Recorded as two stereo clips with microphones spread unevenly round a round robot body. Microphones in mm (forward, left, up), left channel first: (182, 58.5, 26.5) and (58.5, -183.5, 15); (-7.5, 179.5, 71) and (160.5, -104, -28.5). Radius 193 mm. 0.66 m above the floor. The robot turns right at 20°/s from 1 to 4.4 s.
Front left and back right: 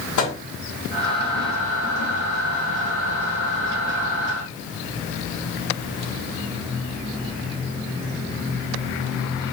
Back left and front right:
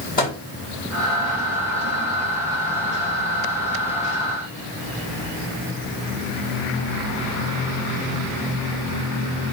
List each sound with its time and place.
0.2 s a microwave: 50° left, 4.5 m